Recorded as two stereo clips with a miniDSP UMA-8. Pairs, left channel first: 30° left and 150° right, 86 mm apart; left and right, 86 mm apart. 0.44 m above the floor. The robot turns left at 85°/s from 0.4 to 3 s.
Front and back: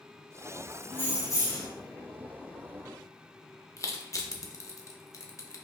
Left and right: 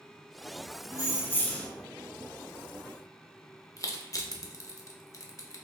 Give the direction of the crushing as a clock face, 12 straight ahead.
10 o'clock.